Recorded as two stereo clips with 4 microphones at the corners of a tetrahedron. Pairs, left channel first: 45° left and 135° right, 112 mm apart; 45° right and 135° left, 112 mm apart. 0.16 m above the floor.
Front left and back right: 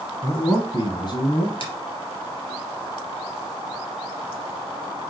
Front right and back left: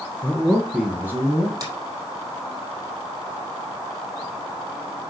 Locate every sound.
0.2 s a man speaking: 10° left, 1.6 m; by 1.5 s 75° left, 2.5 m
1.6 s a finger snap: 80° left, 3.5 m